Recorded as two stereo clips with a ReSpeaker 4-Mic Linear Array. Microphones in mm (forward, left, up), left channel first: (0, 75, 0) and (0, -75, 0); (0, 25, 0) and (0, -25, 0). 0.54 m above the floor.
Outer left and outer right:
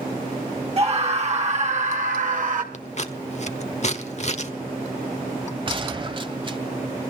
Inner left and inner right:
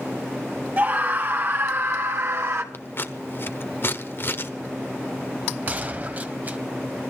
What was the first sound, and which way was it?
A scream, 45° right (ahead or behind).